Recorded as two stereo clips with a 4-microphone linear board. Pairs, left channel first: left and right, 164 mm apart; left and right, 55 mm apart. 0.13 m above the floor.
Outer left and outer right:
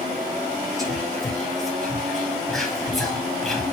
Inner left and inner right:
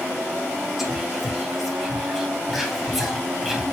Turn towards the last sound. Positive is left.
turn(degrees=0)  # may be behind; listen again after turning